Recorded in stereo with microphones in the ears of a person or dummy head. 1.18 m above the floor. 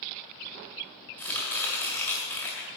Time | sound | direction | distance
1.2 | chopping | 10° left (ahead or behind) | 1.6 m